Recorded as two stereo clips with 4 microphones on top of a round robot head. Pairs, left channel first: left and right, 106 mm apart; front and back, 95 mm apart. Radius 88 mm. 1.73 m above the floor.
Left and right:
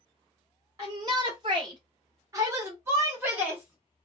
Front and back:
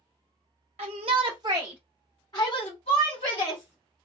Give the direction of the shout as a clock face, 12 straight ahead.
5 o'clock.